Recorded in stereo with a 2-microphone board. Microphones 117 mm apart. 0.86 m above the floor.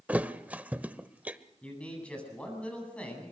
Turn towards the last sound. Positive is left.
turn(degrees=10)  # may be behind; listen again after turning